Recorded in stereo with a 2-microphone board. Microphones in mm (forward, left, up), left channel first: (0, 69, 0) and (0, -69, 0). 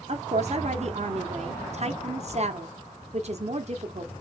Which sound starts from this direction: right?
A woman speaking, at 0.1 s.